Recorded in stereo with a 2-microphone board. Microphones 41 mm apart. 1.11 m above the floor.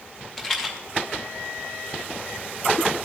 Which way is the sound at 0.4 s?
15° left (ahead or behind).